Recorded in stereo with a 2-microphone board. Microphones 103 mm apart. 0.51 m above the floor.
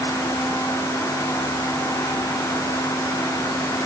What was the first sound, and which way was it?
Only background noise.